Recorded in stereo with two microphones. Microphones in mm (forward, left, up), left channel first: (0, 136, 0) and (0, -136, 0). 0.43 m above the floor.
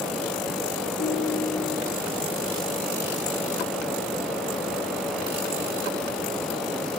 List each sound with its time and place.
1.0 s a ringtone: 40° left (ahead or behind), 3.5 m